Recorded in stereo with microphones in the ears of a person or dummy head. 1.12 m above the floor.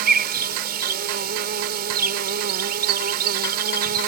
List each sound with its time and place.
0.0 s an insect: 55° right (ahead or behind)